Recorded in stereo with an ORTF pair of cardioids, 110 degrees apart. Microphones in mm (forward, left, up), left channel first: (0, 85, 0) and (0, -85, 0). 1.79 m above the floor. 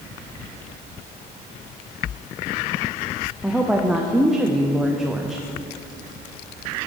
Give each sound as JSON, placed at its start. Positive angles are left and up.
{"t": 3.4, "sound": "a woman speaking", "azimuth_deg": -5, "distance_m": 0.7}